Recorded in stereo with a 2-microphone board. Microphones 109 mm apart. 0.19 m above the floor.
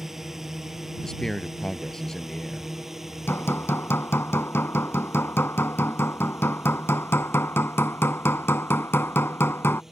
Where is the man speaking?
5° left (ahead or behind).